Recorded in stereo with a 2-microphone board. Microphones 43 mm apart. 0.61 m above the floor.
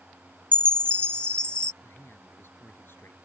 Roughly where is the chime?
Left.